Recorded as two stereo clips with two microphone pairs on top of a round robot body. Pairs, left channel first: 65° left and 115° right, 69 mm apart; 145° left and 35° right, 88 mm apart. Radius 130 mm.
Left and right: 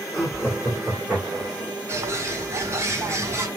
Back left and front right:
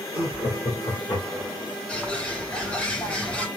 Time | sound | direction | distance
0.1 | laughter | 175° left | 2.5 m
1.9 | a bird | 140° right | 1.7 m